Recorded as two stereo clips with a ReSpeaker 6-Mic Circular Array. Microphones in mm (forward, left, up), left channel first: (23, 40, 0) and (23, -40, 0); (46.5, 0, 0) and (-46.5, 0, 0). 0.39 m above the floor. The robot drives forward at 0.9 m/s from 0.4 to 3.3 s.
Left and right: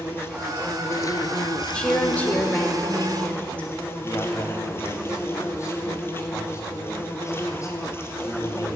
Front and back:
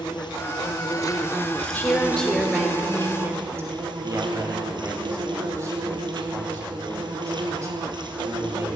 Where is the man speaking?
130° left, 2.5 m.